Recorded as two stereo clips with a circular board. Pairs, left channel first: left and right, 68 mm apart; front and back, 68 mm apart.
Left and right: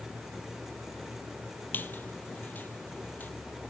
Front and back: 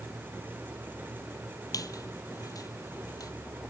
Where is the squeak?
30° left, 0.7 m.